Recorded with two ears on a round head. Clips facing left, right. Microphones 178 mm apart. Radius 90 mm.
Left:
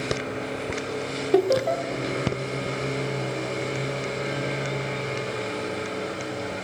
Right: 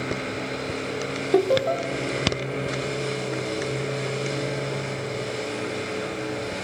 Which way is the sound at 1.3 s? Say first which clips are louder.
Even; 5° left (ahead or behind).